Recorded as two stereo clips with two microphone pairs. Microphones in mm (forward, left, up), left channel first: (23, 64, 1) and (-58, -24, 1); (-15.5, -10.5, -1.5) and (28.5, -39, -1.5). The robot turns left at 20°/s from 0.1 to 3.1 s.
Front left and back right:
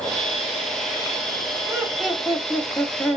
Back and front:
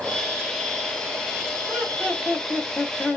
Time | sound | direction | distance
1.7 | laughter | 150° left | 2 m